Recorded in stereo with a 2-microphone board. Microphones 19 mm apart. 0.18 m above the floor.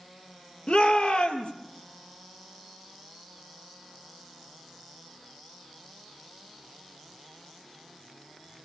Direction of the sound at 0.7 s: 60° left (ahead or behind).